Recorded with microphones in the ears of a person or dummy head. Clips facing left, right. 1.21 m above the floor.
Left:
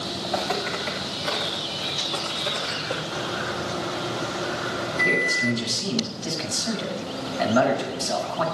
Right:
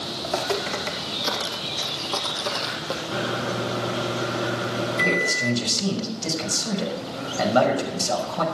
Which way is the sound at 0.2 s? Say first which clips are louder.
Right 2 dB; 55° right (ahead or behind).